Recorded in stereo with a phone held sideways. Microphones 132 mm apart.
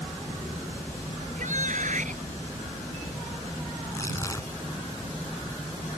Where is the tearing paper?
25° left (ahead or behind).